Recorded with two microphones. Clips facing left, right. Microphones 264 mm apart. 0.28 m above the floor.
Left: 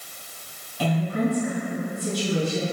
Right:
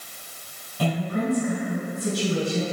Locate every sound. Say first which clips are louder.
0.8 s a woman speaking: left 2 dB; 35° right (ahead or behind), 2.0 m